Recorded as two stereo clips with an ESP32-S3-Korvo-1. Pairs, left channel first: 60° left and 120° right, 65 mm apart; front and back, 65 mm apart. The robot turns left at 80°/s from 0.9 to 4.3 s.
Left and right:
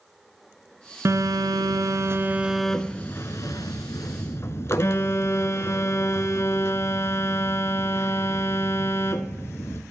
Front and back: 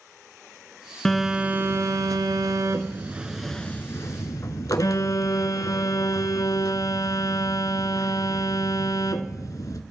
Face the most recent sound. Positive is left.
turn(degrees=20)